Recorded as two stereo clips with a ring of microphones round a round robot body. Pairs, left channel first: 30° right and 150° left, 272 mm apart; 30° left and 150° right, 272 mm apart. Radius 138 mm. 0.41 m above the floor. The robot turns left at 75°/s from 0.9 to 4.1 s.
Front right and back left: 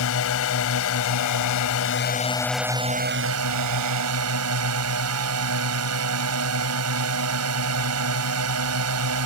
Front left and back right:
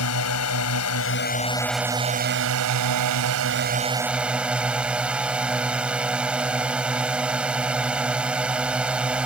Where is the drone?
5° left; by 9.3 s 125° left.